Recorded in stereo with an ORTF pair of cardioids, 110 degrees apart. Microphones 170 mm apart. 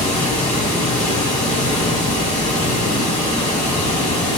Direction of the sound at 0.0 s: 45° left.